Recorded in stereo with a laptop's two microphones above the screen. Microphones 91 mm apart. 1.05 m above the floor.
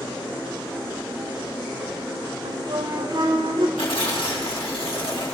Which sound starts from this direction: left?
Tearing paper, at 3.8 s.